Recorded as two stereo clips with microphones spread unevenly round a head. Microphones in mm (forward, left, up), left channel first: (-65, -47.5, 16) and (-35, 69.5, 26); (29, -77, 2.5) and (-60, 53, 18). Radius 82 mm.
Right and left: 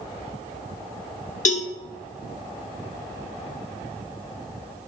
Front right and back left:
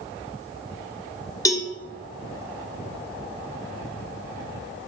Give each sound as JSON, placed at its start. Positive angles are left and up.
{"t": 1.4, "sound": "a cowbell", "azimuth_deg": -125, "distance_m": 0.9}